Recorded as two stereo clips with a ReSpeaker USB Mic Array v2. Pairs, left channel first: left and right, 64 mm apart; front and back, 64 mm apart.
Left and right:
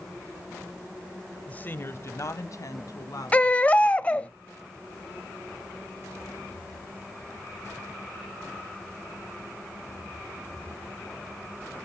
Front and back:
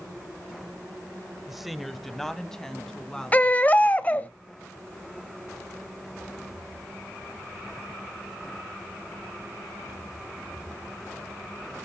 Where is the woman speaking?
105° left, 1.0 m; by 4.3 s 75° left, 3.5 m.